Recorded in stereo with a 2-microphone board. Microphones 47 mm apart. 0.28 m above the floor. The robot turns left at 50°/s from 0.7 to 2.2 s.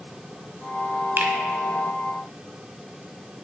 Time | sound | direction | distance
1.2 | a finger snap | 50° right (ahead or behind) | 1.2 m